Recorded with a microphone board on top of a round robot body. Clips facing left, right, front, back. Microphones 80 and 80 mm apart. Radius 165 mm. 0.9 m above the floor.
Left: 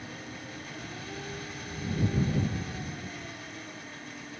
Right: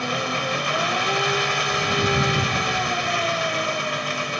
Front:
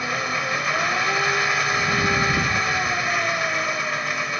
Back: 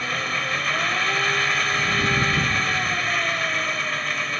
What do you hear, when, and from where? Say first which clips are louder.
0.0 s an engine running: right 17 dB, front 2 dB; 80° right